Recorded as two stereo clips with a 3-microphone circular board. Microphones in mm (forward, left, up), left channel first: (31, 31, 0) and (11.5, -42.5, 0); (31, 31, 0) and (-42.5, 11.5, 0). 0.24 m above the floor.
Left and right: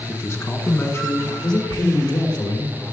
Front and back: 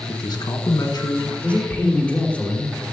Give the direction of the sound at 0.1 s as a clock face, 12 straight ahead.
11 o'clock.